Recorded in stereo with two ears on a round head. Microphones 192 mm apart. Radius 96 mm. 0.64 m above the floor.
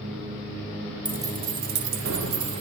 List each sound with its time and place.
1.1 s keys jangling: 5° right (ahead or behind), 0.9 m; by 2.6 s 75° right (ahead or behind), 1.5 m